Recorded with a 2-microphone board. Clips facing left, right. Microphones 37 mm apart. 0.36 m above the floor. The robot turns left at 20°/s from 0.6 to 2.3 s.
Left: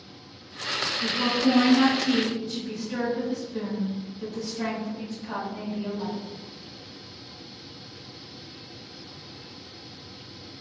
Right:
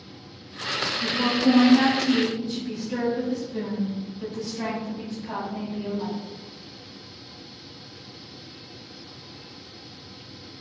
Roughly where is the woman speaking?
Centre.